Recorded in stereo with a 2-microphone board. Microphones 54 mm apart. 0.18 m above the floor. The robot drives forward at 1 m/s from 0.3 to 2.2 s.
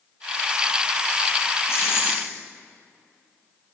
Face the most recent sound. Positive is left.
turn(degrees=45)  # may be behind; listen again after turning